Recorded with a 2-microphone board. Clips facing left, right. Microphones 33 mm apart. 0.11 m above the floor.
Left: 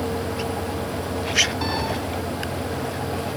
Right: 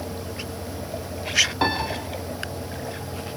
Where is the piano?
30° right (ahead or behind), 6.5 m.